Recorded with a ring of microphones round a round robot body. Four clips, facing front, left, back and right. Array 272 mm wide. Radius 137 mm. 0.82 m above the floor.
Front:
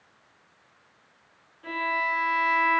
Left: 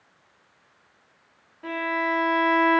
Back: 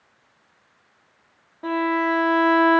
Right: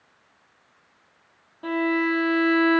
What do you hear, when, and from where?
1.6 s a violin: 160° right, 1.4 m